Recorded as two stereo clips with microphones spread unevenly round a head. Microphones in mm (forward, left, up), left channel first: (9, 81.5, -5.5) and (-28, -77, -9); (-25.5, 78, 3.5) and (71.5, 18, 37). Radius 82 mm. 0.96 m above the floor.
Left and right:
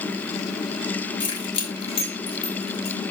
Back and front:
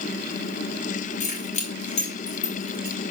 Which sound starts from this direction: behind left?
Keys jangling, at 1.2 s.